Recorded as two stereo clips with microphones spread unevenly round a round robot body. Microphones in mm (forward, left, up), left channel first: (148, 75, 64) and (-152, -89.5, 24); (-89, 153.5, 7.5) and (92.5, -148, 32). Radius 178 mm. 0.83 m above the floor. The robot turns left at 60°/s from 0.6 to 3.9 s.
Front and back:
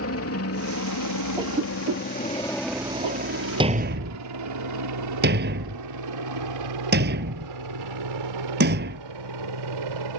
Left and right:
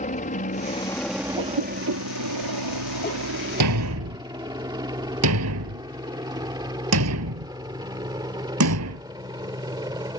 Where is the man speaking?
I don't hear a man speaking.